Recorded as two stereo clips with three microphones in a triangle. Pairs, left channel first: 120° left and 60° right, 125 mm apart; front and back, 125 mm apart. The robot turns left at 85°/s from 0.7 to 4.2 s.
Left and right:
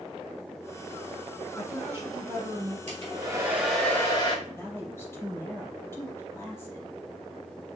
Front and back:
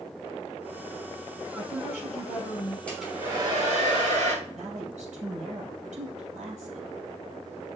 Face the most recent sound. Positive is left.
turn(degrees=-170)